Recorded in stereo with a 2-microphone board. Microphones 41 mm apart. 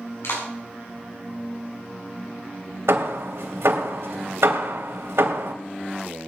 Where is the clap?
75° left (ahead or behind), 7.5 m.